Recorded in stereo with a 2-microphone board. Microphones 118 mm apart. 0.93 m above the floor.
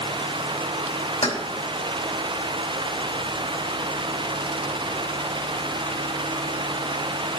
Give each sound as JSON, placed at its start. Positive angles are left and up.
{"t": 1.2, "sound": "keys jangling", "side_deg": 65, "distance_m": 3.5}